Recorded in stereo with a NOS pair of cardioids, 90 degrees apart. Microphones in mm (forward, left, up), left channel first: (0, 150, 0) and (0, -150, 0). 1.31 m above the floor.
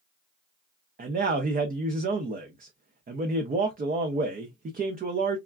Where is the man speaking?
30° right, 0.6 m.